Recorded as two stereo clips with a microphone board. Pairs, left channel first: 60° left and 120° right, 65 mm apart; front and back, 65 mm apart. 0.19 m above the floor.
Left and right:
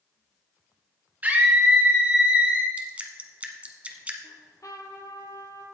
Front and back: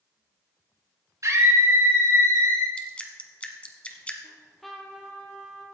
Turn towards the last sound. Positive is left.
turn(degrees=90)